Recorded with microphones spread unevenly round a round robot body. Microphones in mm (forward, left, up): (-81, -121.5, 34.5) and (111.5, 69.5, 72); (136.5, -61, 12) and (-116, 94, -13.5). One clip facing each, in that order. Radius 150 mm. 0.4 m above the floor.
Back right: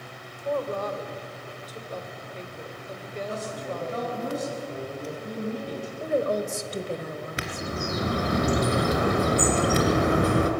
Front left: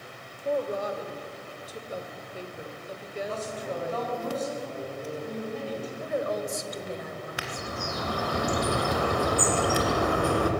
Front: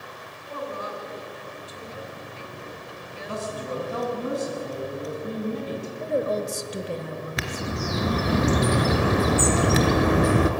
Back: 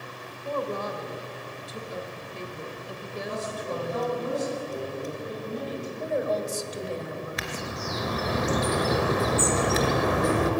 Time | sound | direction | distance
0.5 | a woman speaking | 130° left | 1.9 m
3.3 | a man speaking | 60° right | 4 m
6.0 | a woman speaking | 85° right | 1.7 m
7.4 | a bird | 65° right | 2 m